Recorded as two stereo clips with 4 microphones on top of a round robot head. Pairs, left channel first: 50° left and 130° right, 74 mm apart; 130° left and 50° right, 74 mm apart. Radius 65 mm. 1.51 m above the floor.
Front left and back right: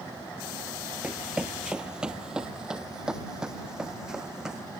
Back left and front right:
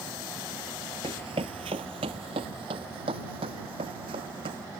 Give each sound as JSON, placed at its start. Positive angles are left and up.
{"t": 1.0, "sound": "running footsteps", "azimuth_deg": -55}